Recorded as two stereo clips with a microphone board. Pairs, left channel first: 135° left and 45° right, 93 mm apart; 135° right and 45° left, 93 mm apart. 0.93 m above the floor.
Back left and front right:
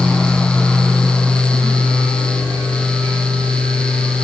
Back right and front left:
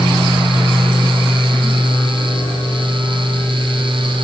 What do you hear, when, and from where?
Only background noise.